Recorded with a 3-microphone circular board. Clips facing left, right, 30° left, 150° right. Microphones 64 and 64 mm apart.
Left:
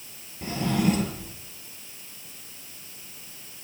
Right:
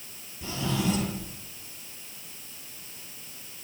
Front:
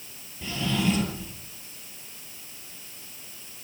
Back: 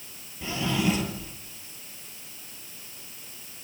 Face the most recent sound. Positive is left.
turn(degrees=130)